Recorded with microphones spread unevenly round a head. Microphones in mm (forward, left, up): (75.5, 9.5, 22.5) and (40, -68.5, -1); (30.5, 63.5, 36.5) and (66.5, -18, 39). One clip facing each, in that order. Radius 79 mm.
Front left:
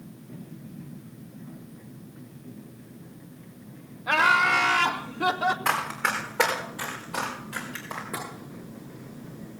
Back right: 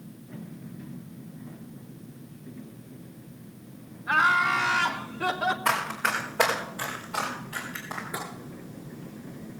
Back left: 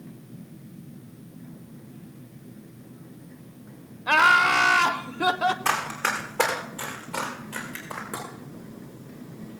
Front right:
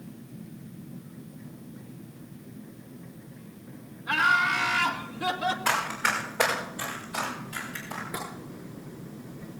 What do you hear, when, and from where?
4.1 s laughter: 100° left, 0.7 m; by 5.5 s 155° left, 1.0 m
5.7 s running footsteps: 160° left, 4 m; by 8.0 s 145° left, 4.5 m
8.1 s tapping: 120° left, 8 m